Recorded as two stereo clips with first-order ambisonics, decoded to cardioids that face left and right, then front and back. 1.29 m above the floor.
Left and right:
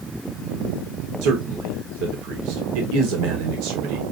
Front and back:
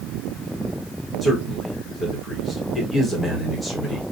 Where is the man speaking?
85° right, 1.3 m.